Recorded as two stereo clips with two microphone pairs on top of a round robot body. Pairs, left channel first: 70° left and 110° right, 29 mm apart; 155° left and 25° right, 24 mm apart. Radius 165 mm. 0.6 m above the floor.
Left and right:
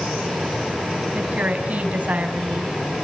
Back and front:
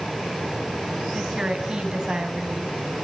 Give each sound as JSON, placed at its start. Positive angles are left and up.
{"t": 1.1, "sound": "a woman speaking", "azimuth_deg": -75, "distance_m": 4.5}